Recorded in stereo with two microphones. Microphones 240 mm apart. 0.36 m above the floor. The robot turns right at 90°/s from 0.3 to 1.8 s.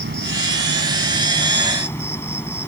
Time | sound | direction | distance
0.0 | an insect | 125° right | ?